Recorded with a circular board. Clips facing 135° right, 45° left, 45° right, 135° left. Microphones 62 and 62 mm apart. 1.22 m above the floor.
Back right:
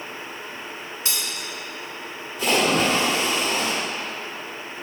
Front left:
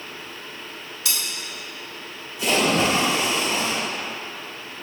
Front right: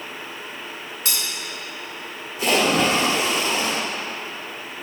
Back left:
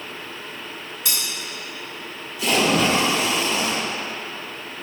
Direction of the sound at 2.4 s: 95° right.